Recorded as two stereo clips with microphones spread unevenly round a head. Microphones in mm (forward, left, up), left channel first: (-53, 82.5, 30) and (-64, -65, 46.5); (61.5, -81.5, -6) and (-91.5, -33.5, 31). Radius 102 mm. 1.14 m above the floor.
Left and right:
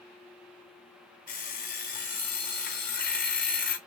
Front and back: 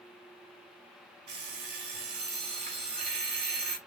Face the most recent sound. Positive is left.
turn(degrees=110)